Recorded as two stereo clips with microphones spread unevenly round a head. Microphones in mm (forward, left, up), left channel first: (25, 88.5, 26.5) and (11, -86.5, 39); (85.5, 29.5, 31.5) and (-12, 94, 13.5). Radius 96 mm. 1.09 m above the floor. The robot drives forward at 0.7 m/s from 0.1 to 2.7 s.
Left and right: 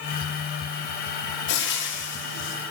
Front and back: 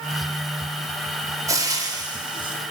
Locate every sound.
1.5 s frying: 85° left, 3 m; by 2.5 s 100° left, 3 m